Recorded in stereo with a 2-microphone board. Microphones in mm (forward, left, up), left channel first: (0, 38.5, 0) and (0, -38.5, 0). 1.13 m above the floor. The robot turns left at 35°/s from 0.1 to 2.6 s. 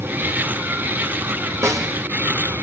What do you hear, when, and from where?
1.6 s a snare drum: 40° right (ahead or behind), 2.5 m; by 1.9 s 50° right (ahead or behind), 2.5 m